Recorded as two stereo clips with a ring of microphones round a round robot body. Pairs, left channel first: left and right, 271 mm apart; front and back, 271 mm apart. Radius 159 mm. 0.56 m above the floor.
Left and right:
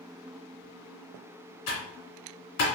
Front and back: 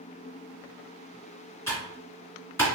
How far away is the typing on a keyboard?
About 2 m.